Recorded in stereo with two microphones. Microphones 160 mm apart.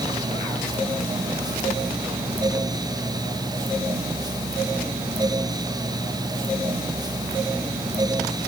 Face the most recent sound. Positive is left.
No sound to turn to.